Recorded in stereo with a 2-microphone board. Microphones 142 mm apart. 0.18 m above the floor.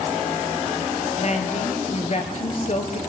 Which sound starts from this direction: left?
A woman speaking, at 1.2 s.